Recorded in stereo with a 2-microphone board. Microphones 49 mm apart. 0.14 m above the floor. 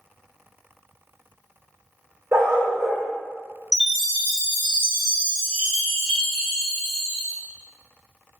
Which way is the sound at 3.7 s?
10° left (ahead or behind).